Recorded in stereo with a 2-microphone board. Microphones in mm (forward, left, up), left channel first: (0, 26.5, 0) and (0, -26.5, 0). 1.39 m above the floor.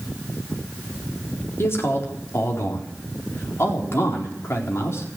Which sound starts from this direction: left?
A man speaking, at 1.6 s.